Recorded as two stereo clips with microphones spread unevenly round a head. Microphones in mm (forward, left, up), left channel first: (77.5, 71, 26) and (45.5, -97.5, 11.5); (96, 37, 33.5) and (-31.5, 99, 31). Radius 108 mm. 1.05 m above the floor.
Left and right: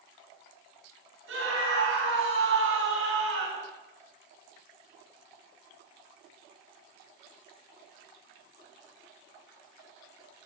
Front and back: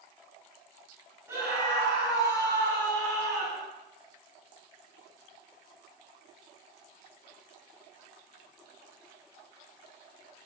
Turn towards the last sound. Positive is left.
turn(degrees=-130)